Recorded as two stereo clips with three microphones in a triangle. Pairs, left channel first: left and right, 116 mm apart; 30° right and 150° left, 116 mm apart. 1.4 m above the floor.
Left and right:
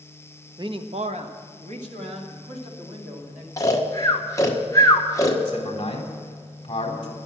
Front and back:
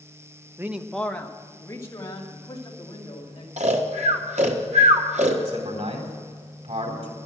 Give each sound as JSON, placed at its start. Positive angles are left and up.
{"t": 0.6, "sound": "a man speaking", "azimuth_deg": -140, "distance_m": 0.8}
{"t": 3.6, "sound": "snoring", "azimuth_deg": 150, "distance_m": 1.6}
{"t": 5.5, "sound": "a man speaking", "azimuth_deg": 135, "distance_m": 4.0}